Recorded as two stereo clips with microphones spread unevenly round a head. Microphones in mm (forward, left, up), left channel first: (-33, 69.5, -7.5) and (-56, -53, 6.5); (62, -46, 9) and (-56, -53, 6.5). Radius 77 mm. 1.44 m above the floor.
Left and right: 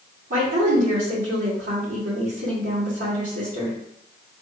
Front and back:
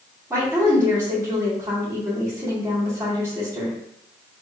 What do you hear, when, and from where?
0.3 s a woman speaking: 105° right, 2.5 m